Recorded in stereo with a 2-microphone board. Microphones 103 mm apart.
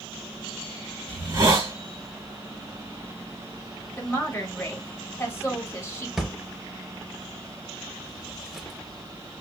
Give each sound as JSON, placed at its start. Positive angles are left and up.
{"t": 1.1, "sound": "a hiss", "side_deg": -35, "distance_m": 1.6}
{"t": 4.0, "sound": "a woman speaking", "side_deg": 20, "distance_m": 1.6}
{"t": 6.2, "sound": "a drawer", "side_deg": -5, "distance_m": 0.6}